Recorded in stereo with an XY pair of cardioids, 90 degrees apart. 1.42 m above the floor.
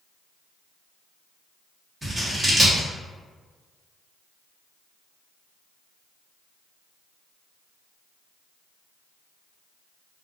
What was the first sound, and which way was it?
Scissors, 20° right.